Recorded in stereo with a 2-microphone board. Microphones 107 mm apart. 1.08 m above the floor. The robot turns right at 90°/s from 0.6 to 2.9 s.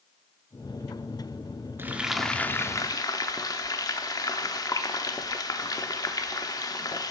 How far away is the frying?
About 0.7 m.